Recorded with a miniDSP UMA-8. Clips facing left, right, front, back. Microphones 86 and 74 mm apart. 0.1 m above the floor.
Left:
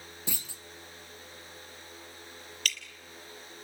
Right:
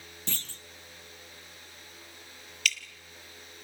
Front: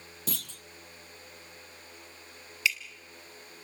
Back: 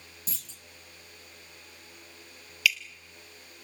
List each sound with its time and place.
0.3 s a clunk: 10° left, 0.7 m
2.6 s dripping: 55° left, 1.5 m